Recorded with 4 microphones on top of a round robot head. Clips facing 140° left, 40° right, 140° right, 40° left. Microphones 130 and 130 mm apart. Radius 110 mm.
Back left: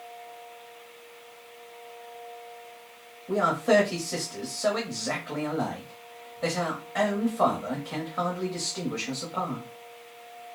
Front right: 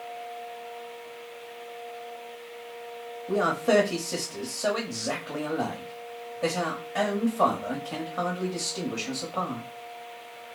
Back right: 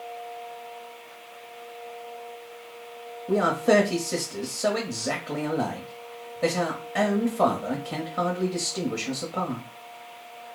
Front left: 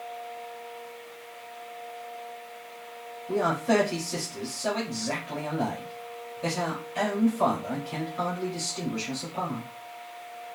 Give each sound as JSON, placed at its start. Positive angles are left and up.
{"t": 3.3, "sound": "a man speaking", "azimuth_deg": -120, "distance_m": 0.8}